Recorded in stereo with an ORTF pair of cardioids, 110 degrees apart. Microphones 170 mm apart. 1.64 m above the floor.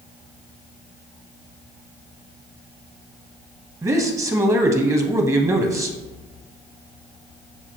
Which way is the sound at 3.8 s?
15° right.